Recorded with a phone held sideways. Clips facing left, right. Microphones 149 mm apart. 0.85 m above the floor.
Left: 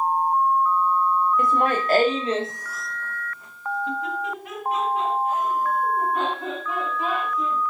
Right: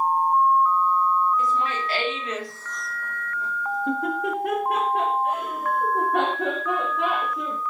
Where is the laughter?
60° left (ahead or behind), 1.3 m; by 7.6 s 75° right (ahead or behind), 3.5 m.